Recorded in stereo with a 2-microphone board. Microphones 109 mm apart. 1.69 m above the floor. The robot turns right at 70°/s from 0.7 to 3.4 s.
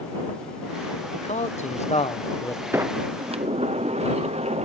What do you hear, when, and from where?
1.1 s a man speaking: 55° left; by 2.6 s 160° left
2.7 s a sliding door: 160° right; by 4.7 s 115° right